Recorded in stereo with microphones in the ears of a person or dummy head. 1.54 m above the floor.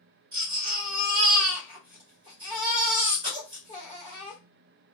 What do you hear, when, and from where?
0.3 s a baby crying: 30° right (ahead or behind), 1.1 m